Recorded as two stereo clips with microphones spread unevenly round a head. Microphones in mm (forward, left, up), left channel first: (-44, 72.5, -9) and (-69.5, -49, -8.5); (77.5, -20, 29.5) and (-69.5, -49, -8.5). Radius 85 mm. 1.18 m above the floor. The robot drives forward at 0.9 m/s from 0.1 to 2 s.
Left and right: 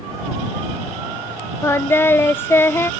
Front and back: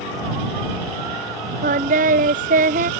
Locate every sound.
1.6 s singing: 145° left; by 2.9 s 150° left